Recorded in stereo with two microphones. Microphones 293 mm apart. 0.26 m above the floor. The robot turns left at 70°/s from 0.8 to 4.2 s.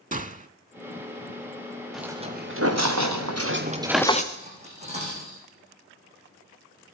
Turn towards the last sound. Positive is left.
turn(degrees=-25)  # may be behind; listen again after turning